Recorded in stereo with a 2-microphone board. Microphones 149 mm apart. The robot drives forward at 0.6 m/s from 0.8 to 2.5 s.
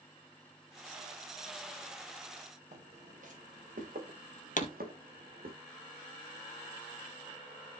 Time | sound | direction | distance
2.7 | footsteps | 55° right (ahead or behind) | 4 m
4.6 | a pop | 60° left (ahead or behind) | 1.4 m